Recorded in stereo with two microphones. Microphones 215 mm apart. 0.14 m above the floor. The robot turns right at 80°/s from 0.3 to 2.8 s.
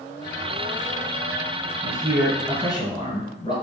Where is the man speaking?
45° right, 1.7 m; by 3.5 s 35° left, 1.7 m.